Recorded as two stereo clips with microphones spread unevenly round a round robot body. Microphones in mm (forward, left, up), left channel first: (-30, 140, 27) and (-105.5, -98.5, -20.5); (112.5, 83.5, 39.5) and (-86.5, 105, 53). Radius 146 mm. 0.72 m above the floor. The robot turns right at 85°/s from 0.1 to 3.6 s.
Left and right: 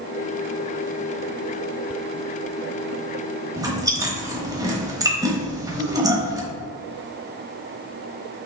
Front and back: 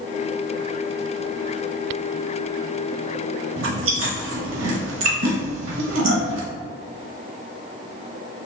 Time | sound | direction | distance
3.6 | chewing | 170° left | 0.9 m